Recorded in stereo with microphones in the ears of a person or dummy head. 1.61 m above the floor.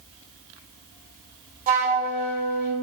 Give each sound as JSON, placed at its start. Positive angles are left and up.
{"t": 1.7, "sound": "a flute", "side_deg": -45, "distance_m": 0.9}